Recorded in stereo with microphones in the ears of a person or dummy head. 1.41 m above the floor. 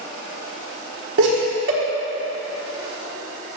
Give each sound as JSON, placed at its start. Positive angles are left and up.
{"t": 1.2, "sound": "laughter", "side_deg": -75, "distance_m": 1.2}